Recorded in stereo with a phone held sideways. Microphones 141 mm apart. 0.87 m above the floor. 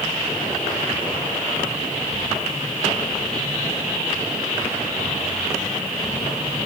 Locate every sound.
Only background noise.